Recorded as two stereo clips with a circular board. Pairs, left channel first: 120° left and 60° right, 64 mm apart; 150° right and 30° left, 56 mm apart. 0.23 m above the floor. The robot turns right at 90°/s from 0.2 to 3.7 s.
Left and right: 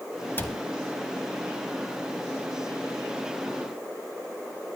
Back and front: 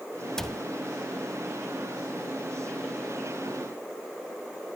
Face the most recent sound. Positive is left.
turn(degrees=75)